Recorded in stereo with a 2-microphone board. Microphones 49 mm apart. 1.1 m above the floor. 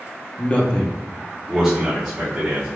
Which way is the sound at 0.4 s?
30° left (ahead or behind).